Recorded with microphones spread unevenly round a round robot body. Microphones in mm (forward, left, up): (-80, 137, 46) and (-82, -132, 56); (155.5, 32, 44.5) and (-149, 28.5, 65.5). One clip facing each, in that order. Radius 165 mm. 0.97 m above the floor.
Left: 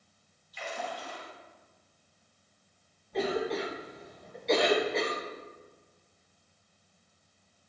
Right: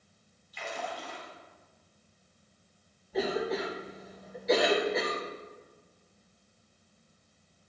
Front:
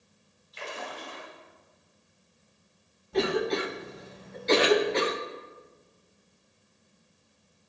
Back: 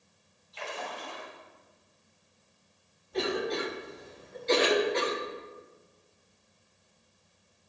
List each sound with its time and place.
0.5 s a splash: 70° right, 3 m
3.1 s a cough: 5° right, 0.9 m